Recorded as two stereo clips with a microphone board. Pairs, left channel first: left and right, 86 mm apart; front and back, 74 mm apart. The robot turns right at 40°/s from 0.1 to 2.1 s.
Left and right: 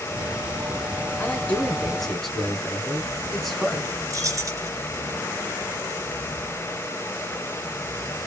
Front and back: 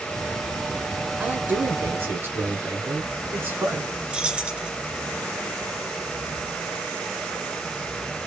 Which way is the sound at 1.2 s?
135° left.